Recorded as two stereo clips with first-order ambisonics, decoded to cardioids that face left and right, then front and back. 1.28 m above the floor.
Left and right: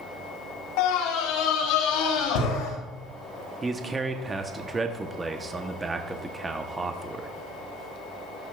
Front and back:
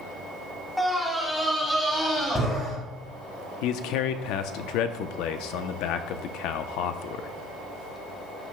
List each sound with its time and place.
0.8 s a scream: 90° left, 1.5 m
3.6 s a man speaking: 15° right, 0.9 m